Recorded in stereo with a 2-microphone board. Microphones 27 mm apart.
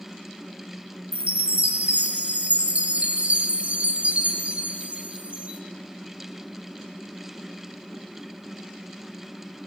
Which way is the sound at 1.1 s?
50° right (ahead or behind).